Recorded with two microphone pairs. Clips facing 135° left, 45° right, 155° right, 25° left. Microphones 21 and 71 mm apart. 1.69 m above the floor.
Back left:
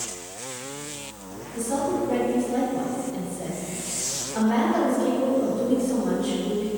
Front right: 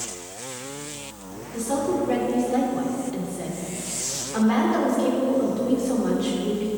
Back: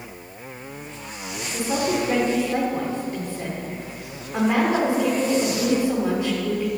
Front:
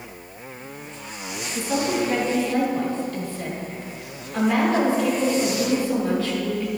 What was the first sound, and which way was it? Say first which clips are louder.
A woman speaking: front right 1 dB, even; 85° right.